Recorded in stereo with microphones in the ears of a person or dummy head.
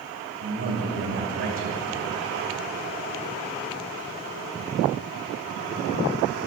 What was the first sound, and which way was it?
A man speaking, 70° right (ahead or behind).